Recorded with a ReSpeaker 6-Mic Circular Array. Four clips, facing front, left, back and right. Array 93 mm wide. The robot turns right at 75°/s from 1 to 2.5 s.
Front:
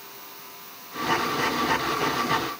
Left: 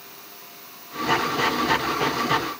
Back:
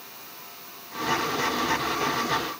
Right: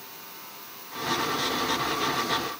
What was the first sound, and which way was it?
Only background noise.